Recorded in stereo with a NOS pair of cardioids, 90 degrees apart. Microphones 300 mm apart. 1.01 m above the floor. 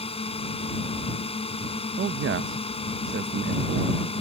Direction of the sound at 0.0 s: 20° left.